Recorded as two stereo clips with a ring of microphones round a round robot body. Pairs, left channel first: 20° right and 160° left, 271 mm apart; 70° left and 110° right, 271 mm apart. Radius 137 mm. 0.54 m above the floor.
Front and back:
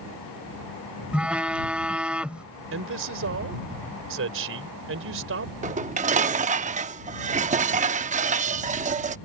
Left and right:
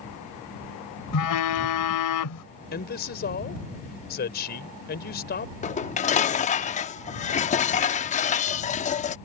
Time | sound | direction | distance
1.1 | a phone buzzing | 70° left | ?
2.7 | a man speaking | 120° left | ?
5.6 | dishes clattering | 115° left | ?